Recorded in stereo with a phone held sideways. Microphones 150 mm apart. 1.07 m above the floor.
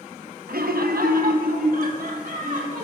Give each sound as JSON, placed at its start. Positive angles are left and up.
{"t": 0.5, "sound": "laughter", "side_deg": -85, "distance_m": 1.0}